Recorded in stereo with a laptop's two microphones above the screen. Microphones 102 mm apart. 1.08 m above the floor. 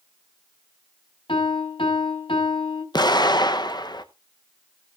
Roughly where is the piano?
Left.